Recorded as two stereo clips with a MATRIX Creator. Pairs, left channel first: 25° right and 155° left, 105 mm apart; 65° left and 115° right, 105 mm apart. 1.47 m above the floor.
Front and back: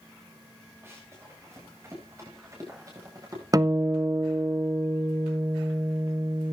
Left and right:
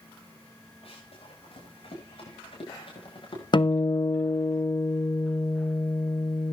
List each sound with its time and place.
0.8 s running footsteps: 90° left, 9.5 m; by 3.4 s 100° left, 9.5 m
3.5 s a guitar: 105° left, 0.9 m